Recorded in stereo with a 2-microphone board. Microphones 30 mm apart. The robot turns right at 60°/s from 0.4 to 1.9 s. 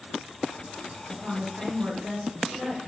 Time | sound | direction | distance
1.1 | a woman speaking | 115° right | 1.6 m